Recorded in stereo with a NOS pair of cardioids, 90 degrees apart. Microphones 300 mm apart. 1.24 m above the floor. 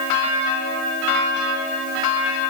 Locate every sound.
Only background noise.